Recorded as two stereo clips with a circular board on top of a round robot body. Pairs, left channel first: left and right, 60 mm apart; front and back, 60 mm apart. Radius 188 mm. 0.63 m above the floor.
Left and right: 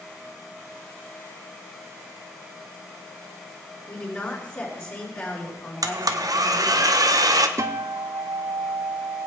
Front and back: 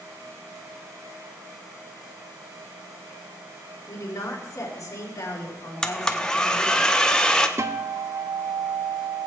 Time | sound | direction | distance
3.9 | a woman speaking | 35° left | 4 m
5.8 | a blender | 75° right | 1.0 m
7.6 | a guitar | 135° right | 0.6 m